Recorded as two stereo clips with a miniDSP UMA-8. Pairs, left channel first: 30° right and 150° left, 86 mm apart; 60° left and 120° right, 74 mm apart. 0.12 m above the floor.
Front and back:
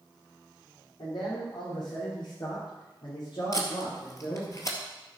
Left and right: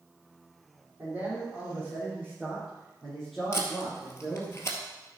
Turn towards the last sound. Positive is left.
turn(degrees=15)